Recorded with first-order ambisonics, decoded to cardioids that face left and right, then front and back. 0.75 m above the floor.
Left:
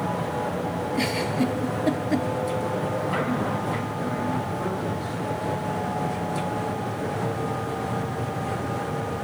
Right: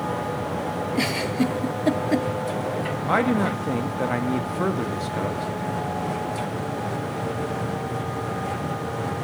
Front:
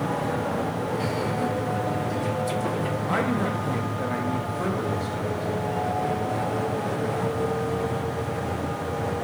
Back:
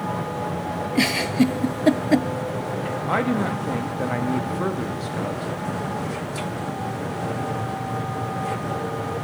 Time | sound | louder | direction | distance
0.9 | a giggle | right 1 dB, back 9 dB | 170° right | 0.5 m
3.1 | a man speaking | right 4 dB, back 3 dB | 115° right | 1.2 m